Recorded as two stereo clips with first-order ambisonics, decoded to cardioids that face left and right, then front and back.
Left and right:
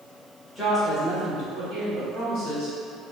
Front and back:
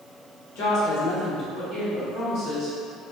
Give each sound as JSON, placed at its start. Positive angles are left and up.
{"t": 0.6, "sound": "a woman speaking", "azimuth_deg": 0, "distance_m": 1.4}